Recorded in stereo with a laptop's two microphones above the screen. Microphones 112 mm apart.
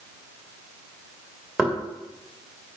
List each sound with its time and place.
1.6 s knocking: 5° right (ahead or behind), 1.6 m